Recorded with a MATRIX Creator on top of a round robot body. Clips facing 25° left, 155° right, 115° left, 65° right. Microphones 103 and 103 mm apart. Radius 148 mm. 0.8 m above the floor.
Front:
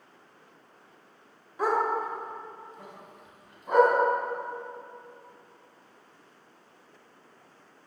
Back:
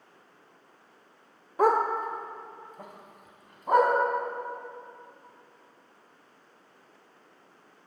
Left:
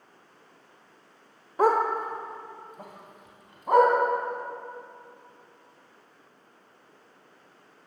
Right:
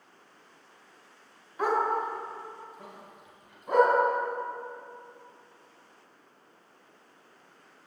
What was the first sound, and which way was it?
A dog barking, 165° left.